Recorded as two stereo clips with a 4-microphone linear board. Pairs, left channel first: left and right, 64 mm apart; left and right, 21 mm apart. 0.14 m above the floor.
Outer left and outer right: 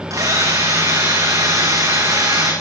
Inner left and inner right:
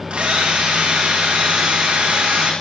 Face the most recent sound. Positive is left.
turn(degrees=-65)  # may be behind; listen again after turning